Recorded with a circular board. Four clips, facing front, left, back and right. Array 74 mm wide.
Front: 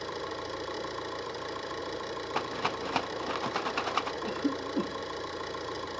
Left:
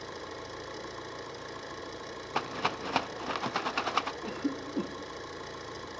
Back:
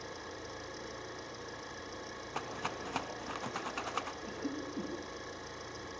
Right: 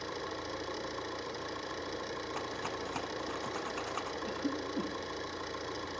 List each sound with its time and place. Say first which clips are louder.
0.0 s an engine running: right 2 dB, front 9 dB; 10° right, 6 m
2.4 s a rattle: left 10 dB, front 7 dB; 55° left, 1.1 m
4.2 s a cough: left 1 dB, front 8 dB; 20° left, 1.8 m